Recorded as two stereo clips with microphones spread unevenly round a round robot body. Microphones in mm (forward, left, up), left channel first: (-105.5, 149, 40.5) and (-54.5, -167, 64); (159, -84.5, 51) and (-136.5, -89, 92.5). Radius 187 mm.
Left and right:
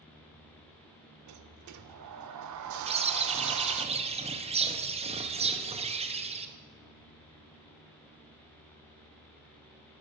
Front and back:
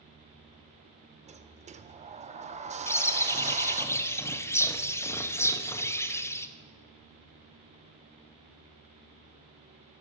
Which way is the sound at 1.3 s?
115° right.